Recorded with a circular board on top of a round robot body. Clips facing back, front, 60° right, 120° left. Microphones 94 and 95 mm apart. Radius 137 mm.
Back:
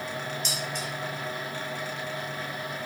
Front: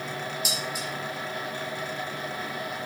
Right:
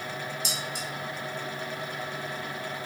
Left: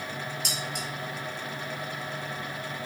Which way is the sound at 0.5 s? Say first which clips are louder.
Front 1 dB, even; 85° left.